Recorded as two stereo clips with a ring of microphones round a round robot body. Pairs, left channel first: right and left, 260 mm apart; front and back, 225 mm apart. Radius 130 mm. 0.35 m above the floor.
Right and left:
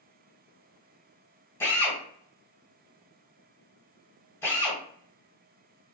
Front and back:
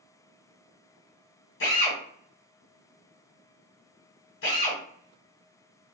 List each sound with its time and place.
1.6 s a drill: 10° right, 1.5 m